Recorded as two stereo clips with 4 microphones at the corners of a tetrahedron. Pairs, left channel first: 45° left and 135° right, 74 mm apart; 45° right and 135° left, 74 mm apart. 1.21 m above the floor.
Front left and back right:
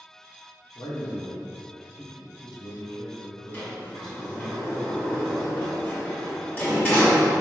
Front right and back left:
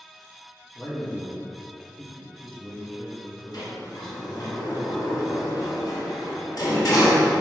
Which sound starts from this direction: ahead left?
A man speaking, at 0.8 s.